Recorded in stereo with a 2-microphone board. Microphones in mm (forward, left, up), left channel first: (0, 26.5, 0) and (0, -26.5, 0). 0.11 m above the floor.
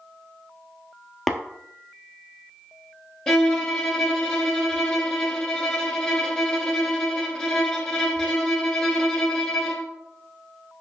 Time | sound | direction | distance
1.3 | tapping | centre (ahead or behind) | 0.9 m
3.3 | a violin | 10° left (ahead or behind) | 1.1 m